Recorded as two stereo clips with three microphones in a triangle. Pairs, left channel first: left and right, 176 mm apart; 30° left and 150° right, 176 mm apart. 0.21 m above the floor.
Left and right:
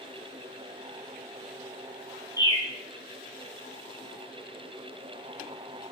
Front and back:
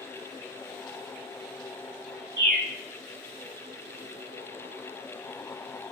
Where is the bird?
25° left, 1.3 m.